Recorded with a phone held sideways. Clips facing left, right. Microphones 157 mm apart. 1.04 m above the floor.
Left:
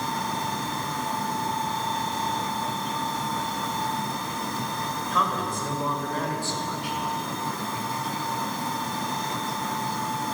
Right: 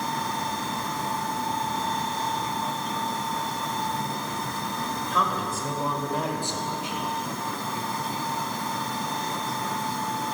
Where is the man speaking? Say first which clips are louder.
Left 1 dB; centre (ahead or behind), 5 m; by 7.0 s 25° right (ahead or behind), 4 m.